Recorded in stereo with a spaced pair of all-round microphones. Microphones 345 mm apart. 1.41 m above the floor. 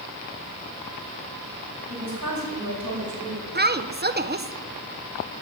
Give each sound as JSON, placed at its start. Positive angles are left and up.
{"t": 1.9, "sound": "a woman speaking", "side_deg": -55, "distance_m": 6.5}
{"t": 3.5, "sound": "a woman speaking", "side_deg": -30, "distance_m": 0.8}